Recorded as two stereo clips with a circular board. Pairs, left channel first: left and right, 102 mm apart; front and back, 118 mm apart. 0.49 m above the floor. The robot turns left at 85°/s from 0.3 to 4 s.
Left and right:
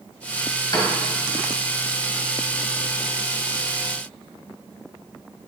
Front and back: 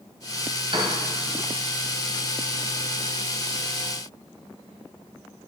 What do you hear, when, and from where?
0.7 s a piano: 140° left, 1.5 m; by 0.9 s 120° left, 1.5 m